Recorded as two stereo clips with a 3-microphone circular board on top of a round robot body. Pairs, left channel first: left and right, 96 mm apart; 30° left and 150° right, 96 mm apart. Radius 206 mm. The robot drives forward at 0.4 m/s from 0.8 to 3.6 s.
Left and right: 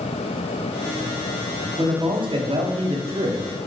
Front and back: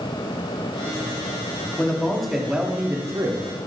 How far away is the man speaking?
About 0.9 m.